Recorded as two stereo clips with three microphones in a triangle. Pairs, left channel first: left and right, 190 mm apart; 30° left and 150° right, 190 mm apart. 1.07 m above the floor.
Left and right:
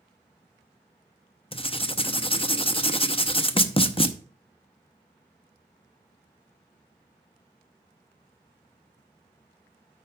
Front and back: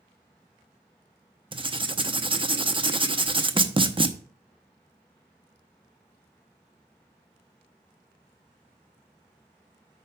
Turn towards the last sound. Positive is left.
turn(degrees=150)